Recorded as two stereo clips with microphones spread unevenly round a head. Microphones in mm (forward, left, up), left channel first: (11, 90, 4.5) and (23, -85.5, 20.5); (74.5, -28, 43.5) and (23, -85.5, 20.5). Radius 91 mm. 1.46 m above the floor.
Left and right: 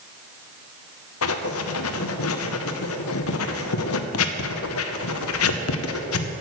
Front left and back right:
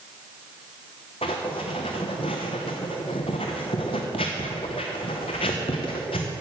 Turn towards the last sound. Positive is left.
turn(degrees=90)